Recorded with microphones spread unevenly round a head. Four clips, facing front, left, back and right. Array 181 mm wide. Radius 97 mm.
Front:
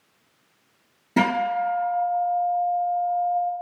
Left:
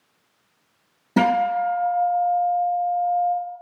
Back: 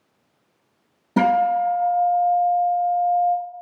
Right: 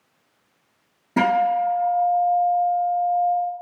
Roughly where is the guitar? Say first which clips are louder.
Even, back 4 dB; behind left.